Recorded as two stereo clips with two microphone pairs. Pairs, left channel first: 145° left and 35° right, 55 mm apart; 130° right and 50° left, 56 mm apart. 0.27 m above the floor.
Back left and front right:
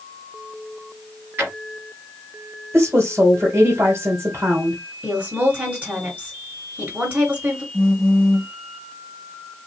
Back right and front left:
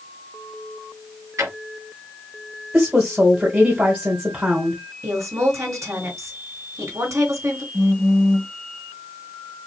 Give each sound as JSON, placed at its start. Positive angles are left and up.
{"t": 1.4, "sound": "a drawer", "azimuth_deg": 15, "distance_m": 2.5}
{"t": 2.7, "sound": "a woman speaking", "azimuth_deg": -10, "distance_m": 2.0}
{"t": 5.0, "sound": "a woman speaking", "azimuth_deg": 25, "distance_m": 3.5}
{"t": 7.7, "sound": "a phone buzzing", "azimuth_deg": 20, "distance_m": 1.7}